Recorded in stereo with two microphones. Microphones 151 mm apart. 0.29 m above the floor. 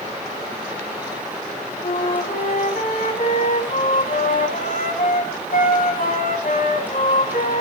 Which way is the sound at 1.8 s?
60° left (ahead or behind).